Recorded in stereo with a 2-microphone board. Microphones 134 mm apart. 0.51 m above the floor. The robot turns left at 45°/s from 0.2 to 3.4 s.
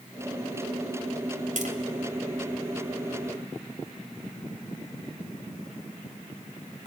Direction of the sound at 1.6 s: 70° right (ahead or behind).